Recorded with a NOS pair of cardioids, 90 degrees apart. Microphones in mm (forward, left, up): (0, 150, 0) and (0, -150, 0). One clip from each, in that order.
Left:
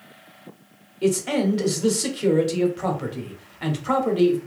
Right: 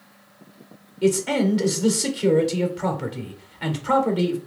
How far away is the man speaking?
About 0.8 m.